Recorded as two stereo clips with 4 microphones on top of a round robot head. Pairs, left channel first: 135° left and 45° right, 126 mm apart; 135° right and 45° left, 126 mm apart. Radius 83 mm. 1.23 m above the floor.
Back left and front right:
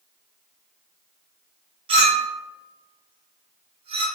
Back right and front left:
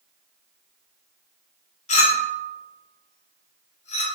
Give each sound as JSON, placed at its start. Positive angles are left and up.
{"t": 1.9, "sound": "a clink", "azimuth_deg": -95, "distance_m": 0.7}